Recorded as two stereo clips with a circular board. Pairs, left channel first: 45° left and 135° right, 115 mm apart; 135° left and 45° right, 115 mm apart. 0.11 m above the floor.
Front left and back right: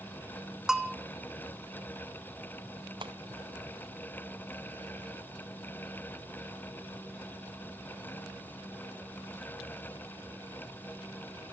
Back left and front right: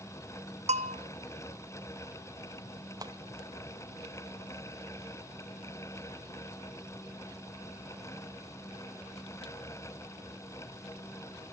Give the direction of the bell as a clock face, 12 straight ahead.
2 o'clock.